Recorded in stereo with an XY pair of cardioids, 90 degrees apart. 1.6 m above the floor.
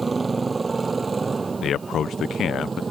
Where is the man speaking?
65° left.